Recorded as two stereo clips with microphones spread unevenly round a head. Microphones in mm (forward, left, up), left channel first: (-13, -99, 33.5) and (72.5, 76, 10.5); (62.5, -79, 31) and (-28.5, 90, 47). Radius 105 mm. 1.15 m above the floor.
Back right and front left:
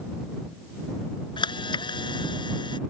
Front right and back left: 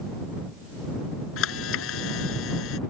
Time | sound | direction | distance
1.4 | a camera shutter | 50° right | ?